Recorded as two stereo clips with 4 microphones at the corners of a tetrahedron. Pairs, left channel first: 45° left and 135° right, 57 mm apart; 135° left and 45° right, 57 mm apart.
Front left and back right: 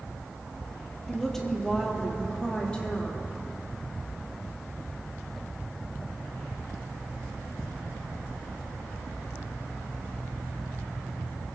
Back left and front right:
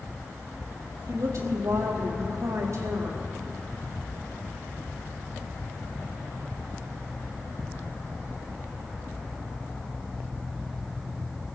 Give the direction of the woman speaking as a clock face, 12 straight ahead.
1 o'clock.